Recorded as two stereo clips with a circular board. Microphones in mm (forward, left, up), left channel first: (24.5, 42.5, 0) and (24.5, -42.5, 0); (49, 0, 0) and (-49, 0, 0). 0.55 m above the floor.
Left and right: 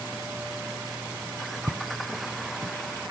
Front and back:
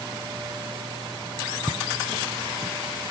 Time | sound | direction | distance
1.7 | footsteps | 125° right | ?